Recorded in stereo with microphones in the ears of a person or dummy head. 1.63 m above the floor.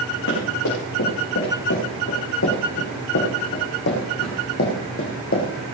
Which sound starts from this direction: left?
Running footsteps, at 0.3 s.